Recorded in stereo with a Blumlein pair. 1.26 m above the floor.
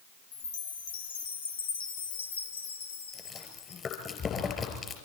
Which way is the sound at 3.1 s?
20° left.